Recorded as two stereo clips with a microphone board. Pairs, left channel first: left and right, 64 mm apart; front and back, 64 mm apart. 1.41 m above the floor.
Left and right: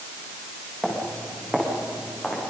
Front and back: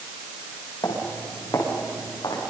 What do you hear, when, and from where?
0.8 s footsteps: 5° left, 8.5 m; by 2.5 s 15° left, 8 m